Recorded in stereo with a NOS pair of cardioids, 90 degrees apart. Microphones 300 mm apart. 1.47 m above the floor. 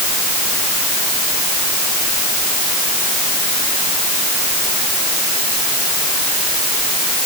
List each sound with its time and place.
Only background noise.